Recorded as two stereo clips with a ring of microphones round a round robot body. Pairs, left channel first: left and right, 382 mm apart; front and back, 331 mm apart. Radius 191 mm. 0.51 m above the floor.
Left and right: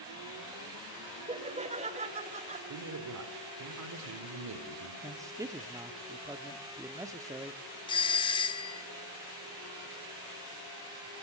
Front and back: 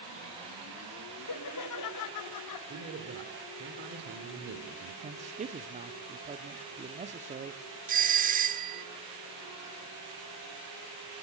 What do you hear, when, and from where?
1.3 s laughter: 20° right, 1.4 m
2.7 s a man speaking: 125° right, 1.8 m
5.0 s a man speaking: 160° right, 0.7 m
7.9 s a doorbell: 155° left, 1.1 m